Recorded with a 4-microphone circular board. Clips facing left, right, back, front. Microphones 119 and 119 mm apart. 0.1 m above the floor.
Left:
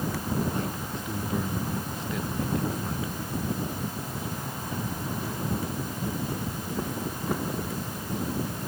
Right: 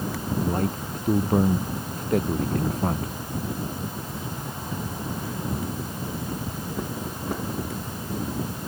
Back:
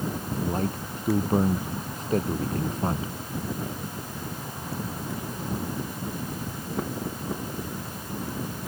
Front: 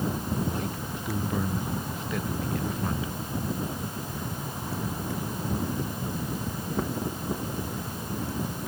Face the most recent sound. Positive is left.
turn(degrees=-125)